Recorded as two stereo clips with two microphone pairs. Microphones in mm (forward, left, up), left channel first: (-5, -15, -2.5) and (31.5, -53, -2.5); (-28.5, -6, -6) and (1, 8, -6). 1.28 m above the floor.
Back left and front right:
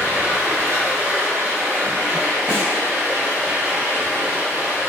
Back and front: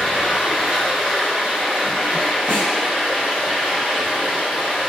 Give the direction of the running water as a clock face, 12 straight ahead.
12 o'clock.